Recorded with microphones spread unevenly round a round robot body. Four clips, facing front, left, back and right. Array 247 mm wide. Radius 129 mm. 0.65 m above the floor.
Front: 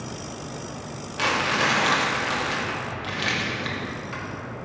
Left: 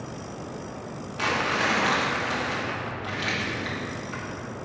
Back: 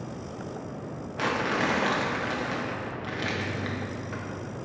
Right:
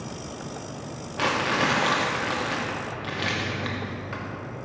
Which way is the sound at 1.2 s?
100° right.